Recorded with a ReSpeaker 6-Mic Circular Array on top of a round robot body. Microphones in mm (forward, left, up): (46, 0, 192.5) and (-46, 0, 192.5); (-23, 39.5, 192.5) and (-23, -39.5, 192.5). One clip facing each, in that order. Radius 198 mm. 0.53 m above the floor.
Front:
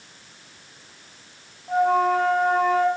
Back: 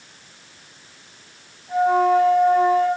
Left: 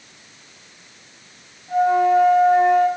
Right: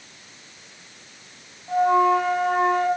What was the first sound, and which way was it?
A flute, 45° right.